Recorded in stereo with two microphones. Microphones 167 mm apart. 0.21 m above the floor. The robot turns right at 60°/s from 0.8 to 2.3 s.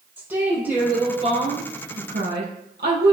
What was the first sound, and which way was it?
A woman speaking, 170° right.